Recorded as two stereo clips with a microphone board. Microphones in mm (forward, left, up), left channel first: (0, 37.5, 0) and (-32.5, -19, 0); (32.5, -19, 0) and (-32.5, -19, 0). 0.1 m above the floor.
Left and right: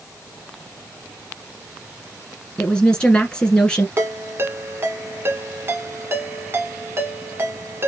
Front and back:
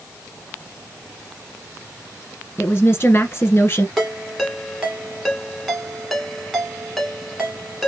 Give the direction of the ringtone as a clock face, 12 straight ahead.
3 o'clock.